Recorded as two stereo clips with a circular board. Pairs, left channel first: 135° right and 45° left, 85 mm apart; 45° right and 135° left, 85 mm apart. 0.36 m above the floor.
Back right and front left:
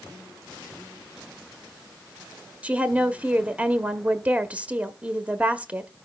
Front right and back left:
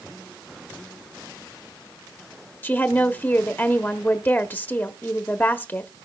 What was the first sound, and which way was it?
A woman speaking, 10° right.